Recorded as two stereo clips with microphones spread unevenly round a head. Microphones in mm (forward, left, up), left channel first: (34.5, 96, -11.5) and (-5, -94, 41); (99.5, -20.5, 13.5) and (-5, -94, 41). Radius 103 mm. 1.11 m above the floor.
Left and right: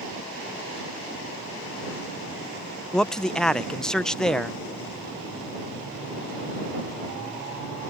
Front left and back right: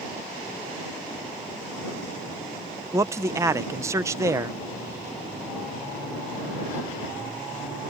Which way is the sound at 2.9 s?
140° left.